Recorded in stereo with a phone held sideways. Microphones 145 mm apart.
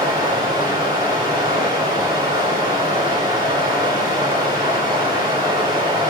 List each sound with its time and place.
0.0 s running water: 30° right (ahead or behind), 5 m